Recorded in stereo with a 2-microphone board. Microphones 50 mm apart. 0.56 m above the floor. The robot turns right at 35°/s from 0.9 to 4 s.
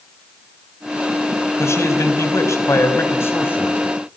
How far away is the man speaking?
About 4.5 m.